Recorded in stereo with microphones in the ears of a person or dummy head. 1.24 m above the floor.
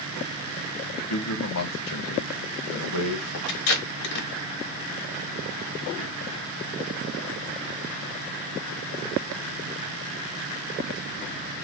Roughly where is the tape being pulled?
Left.